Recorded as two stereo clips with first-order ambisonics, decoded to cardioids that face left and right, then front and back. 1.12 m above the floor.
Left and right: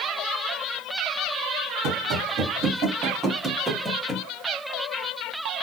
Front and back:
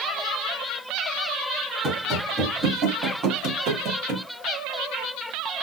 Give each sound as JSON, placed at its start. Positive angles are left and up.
{"t": 1.8, "sound": "running footsteps", "azimuth_deg": -110, "distance_m": 1.9}